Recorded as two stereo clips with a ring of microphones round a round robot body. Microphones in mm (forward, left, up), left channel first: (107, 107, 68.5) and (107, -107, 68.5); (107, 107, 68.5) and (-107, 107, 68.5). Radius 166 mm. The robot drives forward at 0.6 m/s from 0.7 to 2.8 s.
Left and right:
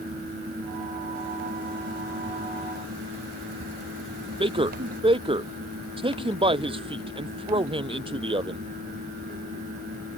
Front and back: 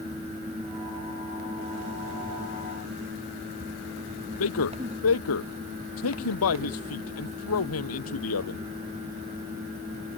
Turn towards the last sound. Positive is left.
turn(degrees=-25)